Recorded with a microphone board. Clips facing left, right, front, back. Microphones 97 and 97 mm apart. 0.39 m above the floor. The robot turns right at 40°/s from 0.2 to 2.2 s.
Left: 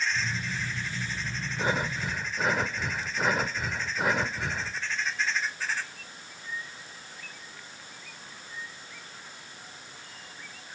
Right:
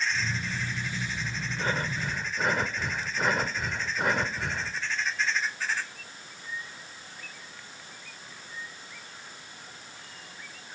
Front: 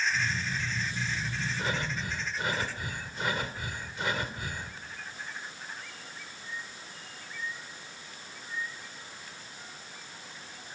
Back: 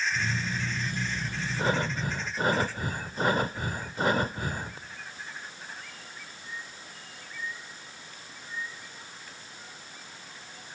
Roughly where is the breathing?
Behind left.